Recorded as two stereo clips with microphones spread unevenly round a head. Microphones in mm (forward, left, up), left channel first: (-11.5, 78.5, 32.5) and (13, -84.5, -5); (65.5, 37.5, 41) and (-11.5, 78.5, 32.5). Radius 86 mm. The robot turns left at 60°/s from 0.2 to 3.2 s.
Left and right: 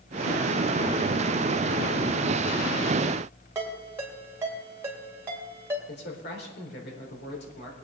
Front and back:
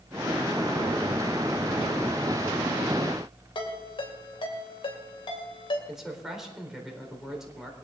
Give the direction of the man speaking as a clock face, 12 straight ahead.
10 o'clock.